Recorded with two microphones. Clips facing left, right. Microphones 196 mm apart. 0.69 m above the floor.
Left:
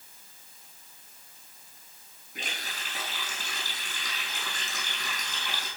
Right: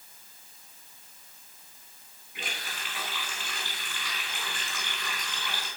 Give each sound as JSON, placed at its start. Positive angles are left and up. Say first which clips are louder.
{"t": 2.4, "sound": "a running tap", "louder": "even", "side_deg": 45, "distance_m": 5.0}